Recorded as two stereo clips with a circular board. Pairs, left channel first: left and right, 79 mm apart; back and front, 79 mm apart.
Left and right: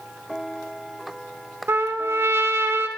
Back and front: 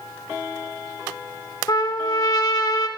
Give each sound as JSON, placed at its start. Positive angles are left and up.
{"t": 1.7, "sound": "a trumpet", "azimuth_deg": -145, "distance_m": 0.5}